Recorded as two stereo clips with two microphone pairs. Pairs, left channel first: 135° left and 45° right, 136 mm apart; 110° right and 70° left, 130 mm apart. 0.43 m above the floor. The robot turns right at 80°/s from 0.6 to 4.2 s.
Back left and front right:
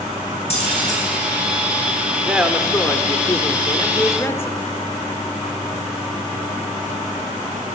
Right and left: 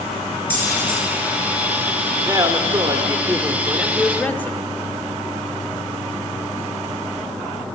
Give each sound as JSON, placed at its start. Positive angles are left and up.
{"t": 0.5, "sound": "keys jangling", "azimuth_deg": 170, "distance_m": 4.5}
{"t": 2.3, "sound": "a man speaking", "azimuth_deg": 30, "distance_m": 0.8}